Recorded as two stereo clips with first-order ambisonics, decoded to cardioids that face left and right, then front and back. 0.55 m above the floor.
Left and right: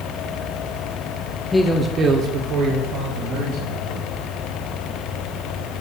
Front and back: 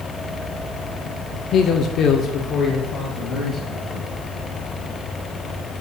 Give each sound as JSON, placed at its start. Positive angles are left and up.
{"t": 1.5, "sound": "a man speaking", "azimuth_deg": 15, "distance_m": 1.1}